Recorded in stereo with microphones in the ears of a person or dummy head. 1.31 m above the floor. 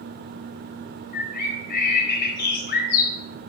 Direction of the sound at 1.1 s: 55° left (ahead or behind).